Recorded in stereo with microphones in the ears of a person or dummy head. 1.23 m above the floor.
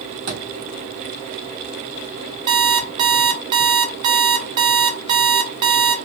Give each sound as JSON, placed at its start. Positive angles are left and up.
{"t": 0.3, "sound": "a thud", "side_deg": -45, "distance_m": 1.2}
{"t": 2.5, "sound": "an alarm clock", "side_deg": -30, "distance_m": 0.6}